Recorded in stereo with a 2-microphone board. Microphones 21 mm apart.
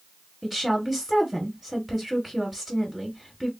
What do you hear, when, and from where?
0.4 s a woman speaking: 10° right (ahead or behind), 1.2 m